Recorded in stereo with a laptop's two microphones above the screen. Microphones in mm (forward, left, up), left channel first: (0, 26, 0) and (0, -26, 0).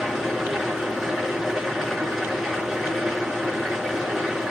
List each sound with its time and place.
0.0 s an engine running: 10° right (ahead or behind), 5.5 m